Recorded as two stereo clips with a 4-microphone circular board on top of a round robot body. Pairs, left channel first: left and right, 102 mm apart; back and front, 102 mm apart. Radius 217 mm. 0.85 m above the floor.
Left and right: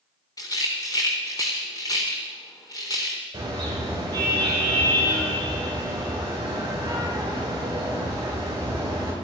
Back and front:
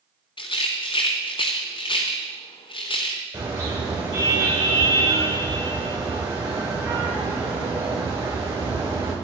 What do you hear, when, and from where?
0.4 s a rattle: 145° left, 0.6 m
3.3 s a car horn: 45° right, 6.5 m